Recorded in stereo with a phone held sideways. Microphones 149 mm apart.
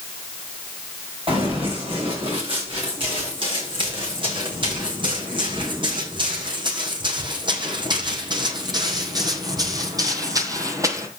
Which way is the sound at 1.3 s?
35° right (ahead or behind).